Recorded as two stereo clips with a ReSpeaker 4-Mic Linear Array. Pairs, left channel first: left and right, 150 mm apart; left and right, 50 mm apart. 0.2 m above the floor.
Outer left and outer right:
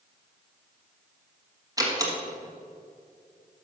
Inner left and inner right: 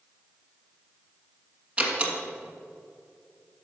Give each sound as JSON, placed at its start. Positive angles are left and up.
{"t": 1.8, "sound": "a door slam", "side_deg": -25, "distance_m": 1.5}